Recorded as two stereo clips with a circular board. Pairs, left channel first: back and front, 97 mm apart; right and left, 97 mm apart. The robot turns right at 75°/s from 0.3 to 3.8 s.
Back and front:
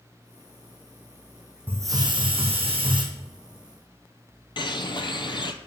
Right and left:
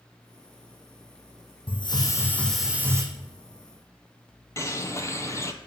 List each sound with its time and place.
1.7 s a hiss: 70° right, 1.9 m; by 3.0 s 35° left, 1.9 m
4.6 s a bird: 145° right, 0.8 m